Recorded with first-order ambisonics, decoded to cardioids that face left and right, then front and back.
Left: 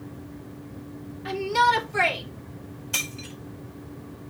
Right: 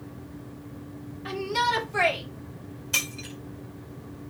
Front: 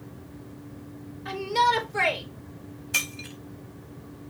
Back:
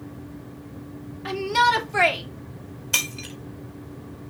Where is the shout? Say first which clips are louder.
Left 5 dB, back 3 dB; straight behind, 2.5 m.